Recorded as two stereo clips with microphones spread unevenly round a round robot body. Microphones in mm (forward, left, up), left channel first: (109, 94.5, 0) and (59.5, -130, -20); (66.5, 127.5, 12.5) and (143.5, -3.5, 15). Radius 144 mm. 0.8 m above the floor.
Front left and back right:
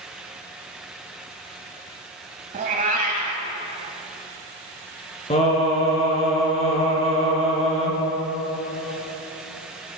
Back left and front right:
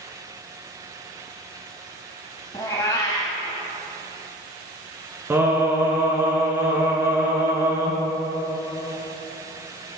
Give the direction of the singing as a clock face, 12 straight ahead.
11 o'clock.